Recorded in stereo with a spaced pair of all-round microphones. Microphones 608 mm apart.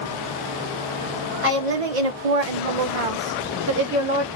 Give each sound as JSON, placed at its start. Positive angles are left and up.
{"t": 1.4, "sound": "a woman speaking", "side_deg": -60, "distance_m": 1.4}